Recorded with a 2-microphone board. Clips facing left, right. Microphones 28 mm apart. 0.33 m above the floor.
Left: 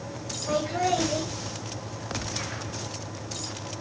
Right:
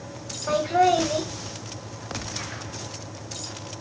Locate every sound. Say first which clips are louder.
0.5 s laughter: right 6 dB; 50° right (ahead or behind), 2.0 m